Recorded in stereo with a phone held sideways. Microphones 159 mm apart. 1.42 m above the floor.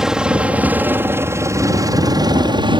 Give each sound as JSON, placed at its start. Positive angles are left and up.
{"t": 0.0, "sound": "a helicopter", "side_deg": -5}